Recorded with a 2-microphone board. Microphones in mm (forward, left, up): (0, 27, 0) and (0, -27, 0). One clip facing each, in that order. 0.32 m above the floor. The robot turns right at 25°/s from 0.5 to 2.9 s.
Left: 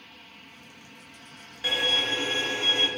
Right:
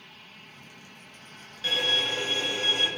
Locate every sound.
1.6 s a violin: 30° left, 0.6 m; by 2.9 s 60° left, 0.6 m